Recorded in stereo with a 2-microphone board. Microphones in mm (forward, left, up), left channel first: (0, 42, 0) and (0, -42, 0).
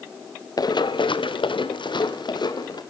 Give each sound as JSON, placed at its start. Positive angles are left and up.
{"t": 0.6, "sound": "running footsteps", "side_deg": 50, "distance_m": 1.2}